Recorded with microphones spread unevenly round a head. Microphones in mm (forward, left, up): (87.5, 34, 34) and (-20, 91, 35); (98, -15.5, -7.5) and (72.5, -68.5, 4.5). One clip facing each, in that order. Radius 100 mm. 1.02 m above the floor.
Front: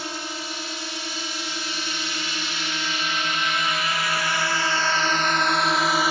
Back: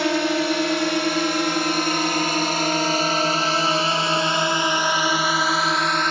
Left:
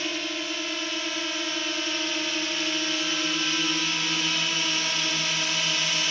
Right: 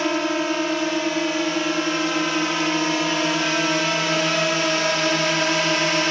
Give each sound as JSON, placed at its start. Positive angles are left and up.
{"t": 0.0, "sound": "a drone", "azimuth_deg": 180}